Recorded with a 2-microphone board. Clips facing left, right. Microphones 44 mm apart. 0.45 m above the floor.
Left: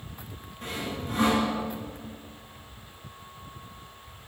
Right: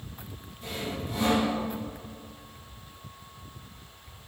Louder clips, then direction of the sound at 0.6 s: Left 1 dB; 55° left (ahead or behind).